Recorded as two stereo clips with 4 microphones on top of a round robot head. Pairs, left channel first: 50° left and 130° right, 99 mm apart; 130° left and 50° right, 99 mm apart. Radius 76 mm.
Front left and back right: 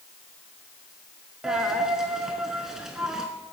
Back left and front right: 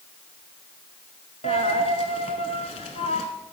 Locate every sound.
1.4 s a dropped coin: 145° left, 0.6 m